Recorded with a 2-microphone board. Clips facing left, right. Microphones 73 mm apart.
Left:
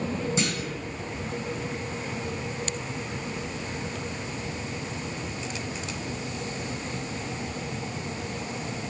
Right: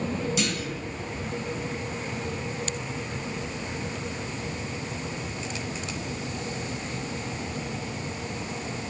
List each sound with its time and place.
0.4 s a clunk: 30° left (ahead or behind), 2 m